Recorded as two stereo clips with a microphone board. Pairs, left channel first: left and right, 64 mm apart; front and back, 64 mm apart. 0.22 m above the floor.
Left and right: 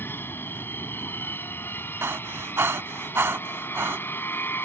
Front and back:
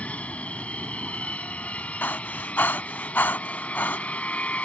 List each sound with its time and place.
0.0 s an aircraft: 60° left
2.0 s breathing: 55° right